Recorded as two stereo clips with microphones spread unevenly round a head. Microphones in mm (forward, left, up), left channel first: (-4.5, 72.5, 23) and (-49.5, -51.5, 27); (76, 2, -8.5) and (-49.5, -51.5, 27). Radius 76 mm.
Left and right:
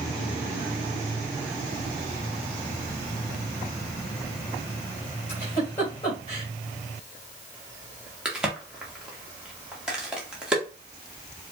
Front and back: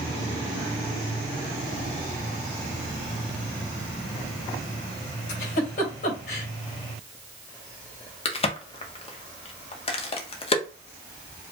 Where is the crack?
25° right, 0.9 m.